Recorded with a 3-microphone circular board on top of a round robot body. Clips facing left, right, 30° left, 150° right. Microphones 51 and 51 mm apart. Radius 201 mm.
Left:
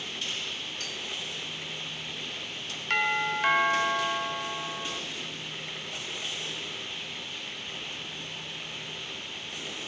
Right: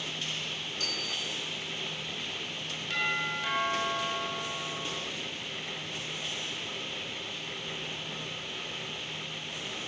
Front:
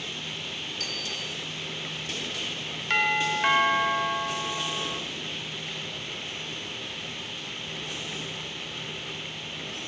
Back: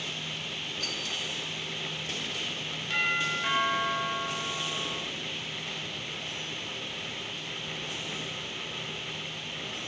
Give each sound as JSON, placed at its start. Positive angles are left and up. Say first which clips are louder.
{"t": 0.8, "sound": "a bicycle bell", "louder": "right 1 dB, back 1 dB", "azimuth_deg": 35, "distance_m": 9.0}
{"t": 2.9, "sound": "a doorbell", "louder": "left 5 dB, front 4 dB", "azimuth_deg": 60, "distance_m": 3.5}